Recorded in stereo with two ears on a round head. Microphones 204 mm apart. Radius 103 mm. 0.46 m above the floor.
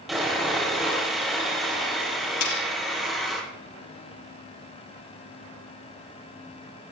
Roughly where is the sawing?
Centre.